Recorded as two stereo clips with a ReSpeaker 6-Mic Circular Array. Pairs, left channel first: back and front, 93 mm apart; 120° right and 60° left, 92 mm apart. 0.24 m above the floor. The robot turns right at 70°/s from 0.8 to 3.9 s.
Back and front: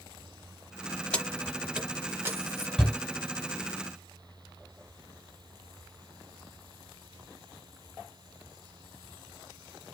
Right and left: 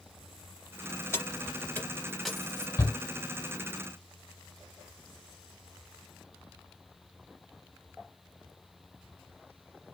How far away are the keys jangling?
About 0.7 m.